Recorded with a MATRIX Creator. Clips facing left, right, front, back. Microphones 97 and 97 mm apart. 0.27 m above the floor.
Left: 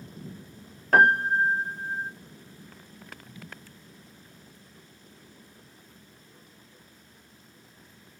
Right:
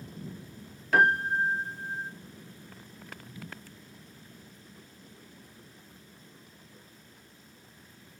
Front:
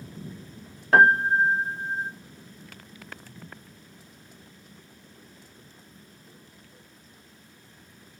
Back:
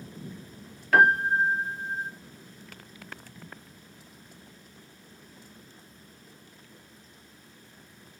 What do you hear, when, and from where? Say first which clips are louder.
0.9 s a piano: left 4 dB, front 3 dB; 55° left, 0.5 m